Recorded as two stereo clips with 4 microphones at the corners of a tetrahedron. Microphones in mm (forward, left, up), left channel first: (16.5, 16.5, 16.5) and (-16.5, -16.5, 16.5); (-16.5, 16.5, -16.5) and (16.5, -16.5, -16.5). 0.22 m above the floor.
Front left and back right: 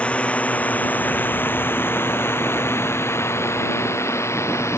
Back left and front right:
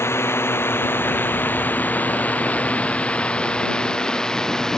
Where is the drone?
105° left; by 4.8 s 55° left.